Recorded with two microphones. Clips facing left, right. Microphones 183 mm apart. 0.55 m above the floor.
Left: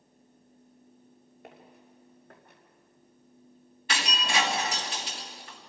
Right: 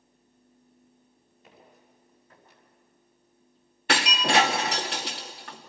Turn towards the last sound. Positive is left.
turn(degrees=-70)  # may be behind; listen again after turning